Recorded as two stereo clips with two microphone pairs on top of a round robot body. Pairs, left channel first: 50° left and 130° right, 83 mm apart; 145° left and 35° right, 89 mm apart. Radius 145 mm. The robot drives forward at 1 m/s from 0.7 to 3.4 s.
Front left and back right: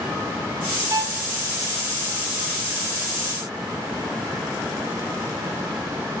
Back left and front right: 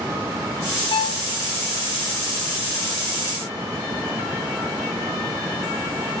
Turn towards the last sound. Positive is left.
turn(degrees=180)